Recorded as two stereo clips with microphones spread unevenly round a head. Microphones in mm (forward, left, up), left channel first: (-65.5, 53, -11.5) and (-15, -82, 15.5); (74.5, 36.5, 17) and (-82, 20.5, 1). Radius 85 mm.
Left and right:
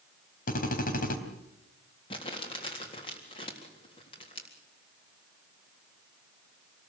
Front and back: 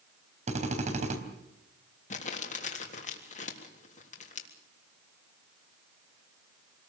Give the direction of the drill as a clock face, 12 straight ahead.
7 o'clock.